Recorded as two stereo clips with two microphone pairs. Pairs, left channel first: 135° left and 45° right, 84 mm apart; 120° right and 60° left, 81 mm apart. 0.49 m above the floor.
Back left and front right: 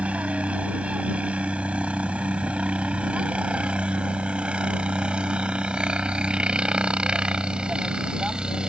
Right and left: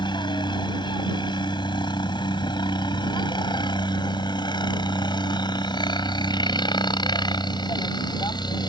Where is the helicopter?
120° right; by 8.7 s 125° right.